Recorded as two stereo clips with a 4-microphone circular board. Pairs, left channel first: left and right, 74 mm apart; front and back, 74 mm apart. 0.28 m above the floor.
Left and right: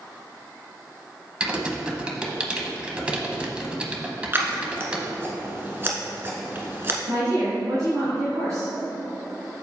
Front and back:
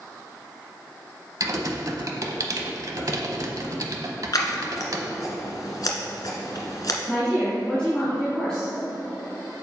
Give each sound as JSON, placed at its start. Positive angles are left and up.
{"t": 1.4, "sound": "typing on a keyboard", "azimuth_deg": -160, "distance_m": 0.9}
{"t": 4.3, "sound": "scissors", "azimuth_deg": -30, "distance_m": 1.3}
{"t": 7.1, "sound": "a woman speaking", "azimuth_deg": -80, "distance_m": 2.0}